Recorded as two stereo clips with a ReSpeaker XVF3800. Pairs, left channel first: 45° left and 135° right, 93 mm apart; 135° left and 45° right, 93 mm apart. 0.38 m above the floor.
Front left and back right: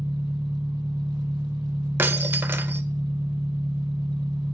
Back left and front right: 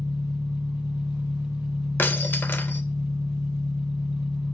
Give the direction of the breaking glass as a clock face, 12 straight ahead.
6 o'clock.